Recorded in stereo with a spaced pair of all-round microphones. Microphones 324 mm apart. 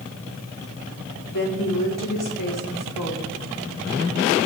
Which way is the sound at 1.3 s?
70° left (ahead or behind).